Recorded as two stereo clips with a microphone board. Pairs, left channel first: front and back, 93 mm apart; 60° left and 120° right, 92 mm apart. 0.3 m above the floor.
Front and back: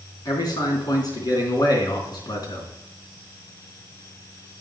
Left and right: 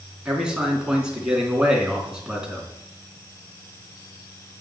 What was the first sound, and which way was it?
A man speaking, 40° right.